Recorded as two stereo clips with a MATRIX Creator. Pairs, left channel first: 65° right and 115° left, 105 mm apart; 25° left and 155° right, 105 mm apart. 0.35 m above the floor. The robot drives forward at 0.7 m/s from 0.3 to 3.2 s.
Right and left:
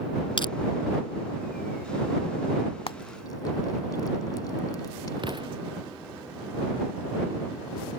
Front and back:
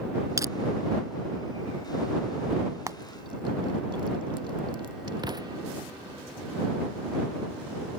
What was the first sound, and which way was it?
Crushing, 100° right.